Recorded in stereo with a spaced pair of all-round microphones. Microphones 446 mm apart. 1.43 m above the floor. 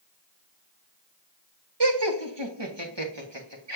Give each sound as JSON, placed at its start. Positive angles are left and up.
{"t": 1.8, "sound": "laughter", "side_deg": -65, "distance_m": 1.6}